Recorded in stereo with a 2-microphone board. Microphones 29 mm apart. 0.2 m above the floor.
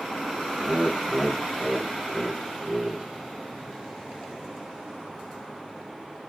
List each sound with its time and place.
0.6 s laughter: 10° right (ahead or behind), 1.0 m; by 3.1 s 15° right (ahead or behind), 1.9 m